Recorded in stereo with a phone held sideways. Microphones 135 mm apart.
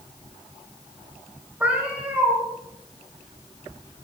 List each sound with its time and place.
1.6 s a cat meowing: 10° right (ahead or behind), 5 m